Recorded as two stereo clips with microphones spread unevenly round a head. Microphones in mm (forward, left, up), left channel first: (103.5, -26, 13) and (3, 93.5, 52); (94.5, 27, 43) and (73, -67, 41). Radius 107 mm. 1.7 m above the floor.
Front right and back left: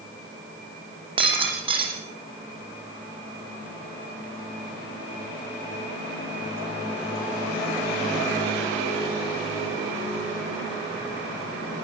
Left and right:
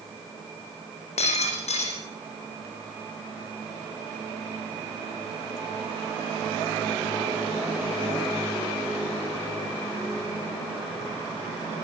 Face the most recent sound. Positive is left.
turn(degrees=75)